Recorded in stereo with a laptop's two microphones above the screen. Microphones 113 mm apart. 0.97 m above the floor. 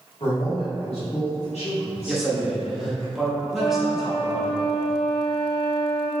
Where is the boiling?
I don't hear boiling.